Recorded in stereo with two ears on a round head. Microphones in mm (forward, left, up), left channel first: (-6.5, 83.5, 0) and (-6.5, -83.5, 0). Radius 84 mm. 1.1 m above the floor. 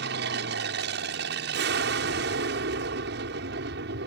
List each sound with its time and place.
0.0 s an aircraft: 60° right (ahead or behind)